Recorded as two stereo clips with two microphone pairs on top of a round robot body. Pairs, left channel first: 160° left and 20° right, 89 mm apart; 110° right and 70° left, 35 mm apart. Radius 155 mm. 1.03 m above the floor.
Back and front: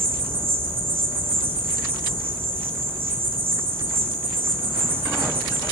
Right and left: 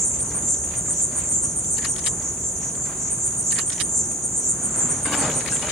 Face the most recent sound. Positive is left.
turn(degrees=-15)